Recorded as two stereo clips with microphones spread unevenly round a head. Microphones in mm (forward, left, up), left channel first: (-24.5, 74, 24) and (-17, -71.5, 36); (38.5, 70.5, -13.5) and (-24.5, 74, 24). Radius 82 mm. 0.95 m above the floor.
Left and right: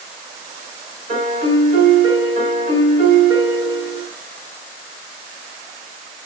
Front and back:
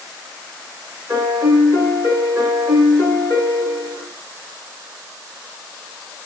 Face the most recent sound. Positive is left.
turn(degrees=-125)